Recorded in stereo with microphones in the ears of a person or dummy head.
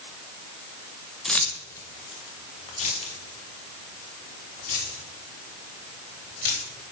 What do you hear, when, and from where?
1.2 s keys jangling: 5° left (ahead or behind), 1.2 m; by 6.7 s 55° left (ahead or behind), 5 m